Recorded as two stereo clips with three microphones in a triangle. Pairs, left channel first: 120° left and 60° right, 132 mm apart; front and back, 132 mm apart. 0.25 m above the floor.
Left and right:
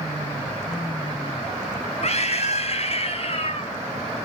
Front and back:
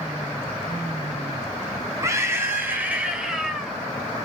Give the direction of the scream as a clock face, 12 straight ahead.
8 o'clock.